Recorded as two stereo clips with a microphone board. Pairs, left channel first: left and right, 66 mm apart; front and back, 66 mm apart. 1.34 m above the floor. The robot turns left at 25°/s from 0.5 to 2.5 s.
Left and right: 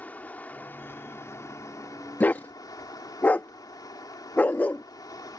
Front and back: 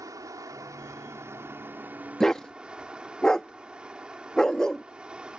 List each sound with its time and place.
0.0 s running water: 155° left; by 5.4 s 105° left
2.2 s a dog barking: 70° left; by 4.8 s 60° left